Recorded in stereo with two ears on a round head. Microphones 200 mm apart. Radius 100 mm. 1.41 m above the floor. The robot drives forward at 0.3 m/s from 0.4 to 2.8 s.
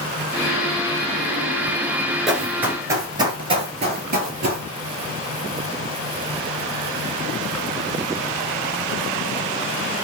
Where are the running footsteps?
Centre (ahead or behind), 1.4 m; by 4.6 s 40° right (ahead or behind), 2.0 m.